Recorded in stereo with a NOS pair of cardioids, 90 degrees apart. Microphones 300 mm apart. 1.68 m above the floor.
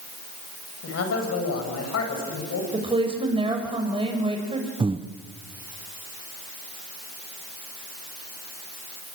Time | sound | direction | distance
0.8 | a man speaking | 55° left | 8.5 m
2.7 | a woman speaking | 15° right | 7 m
4.8 | breathing | 20° right | 1.3 m